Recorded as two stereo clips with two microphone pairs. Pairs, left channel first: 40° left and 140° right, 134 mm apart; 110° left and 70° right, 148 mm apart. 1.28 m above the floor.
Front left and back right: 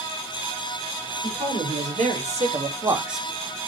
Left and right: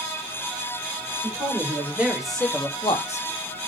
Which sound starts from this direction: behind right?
A man speaking, at 1.2 s.